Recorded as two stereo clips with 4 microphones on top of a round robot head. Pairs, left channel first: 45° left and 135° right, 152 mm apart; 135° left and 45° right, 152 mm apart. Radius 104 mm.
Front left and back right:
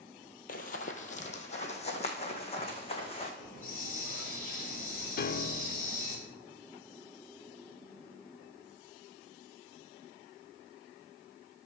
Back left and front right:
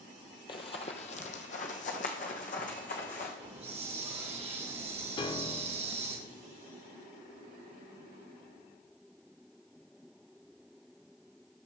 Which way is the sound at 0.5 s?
75° left.